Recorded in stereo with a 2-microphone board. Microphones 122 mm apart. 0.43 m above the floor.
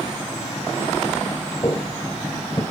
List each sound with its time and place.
1.6 s footsteps: 35° left (ahead or behind), 0.8 m